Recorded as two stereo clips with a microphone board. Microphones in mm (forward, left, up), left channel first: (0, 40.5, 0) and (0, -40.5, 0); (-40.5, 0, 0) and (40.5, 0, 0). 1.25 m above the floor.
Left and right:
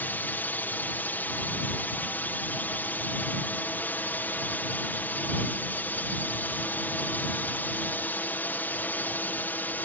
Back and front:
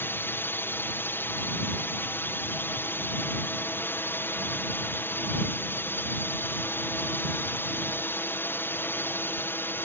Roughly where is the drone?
Behind left.